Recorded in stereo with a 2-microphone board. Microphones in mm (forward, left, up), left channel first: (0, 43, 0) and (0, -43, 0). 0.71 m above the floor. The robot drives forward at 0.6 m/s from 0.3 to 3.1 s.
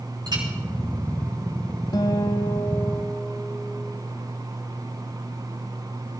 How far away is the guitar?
About 0.8 m.